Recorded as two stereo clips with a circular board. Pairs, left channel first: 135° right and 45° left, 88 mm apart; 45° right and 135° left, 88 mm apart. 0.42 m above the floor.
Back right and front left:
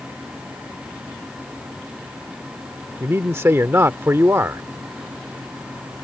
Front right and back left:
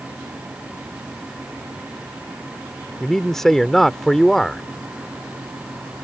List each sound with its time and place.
3.0 s a man speaking: 35° left